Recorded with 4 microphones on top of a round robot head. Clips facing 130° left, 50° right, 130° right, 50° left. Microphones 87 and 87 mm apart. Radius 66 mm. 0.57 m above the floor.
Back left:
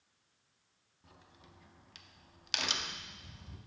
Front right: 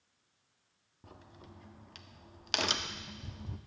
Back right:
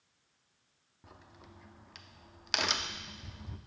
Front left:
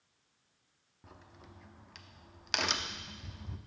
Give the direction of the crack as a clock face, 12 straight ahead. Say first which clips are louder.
Front right 6 dB, even; 1 o'clock.